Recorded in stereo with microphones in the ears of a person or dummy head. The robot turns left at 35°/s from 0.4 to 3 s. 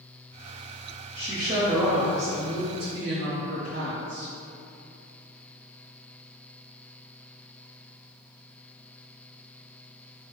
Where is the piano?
No piano in this recording.